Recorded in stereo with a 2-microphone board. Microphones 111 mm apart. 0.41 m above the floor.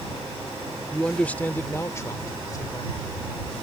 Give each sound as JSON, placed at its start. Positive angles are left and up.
{"t": 0.9, "sound": "a man speaking", "side_deg": 5}